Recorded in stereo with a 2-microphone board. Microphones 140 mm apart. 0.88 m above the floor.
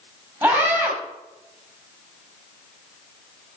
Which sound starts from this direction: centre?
A scream, at 0.4 s.